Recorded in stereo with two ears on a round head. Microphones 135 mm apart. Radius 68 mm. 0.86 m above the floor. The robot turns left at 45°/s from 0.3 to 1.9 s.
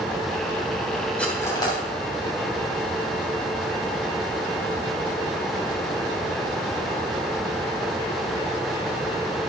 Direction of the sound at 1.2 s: 5° left (ahead or behind).